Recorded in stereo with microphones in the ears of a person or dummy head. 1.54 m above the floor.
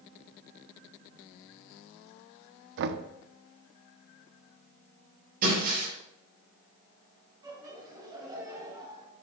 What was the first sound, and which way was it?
Knocking, 65° right (ahead or behind).